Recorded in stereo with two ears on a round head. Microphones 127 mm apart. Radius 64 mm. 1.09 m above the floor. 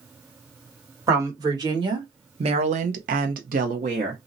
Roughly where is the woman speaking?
Right.